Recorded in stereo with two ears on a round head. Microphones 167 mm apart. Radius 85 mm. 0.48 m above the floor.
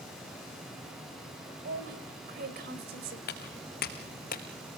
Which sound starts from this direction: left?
Footsteps, at 3.3 s.